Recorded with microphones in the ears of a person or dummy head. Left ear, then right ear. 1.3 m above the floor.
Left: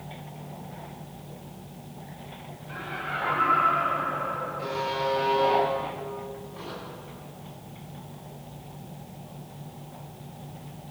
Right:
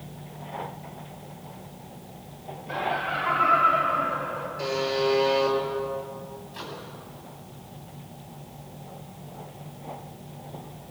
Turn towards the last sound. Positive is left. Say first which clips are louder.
# right 1 dB
turn(degrees=-65)  # may be behind; listen again after turning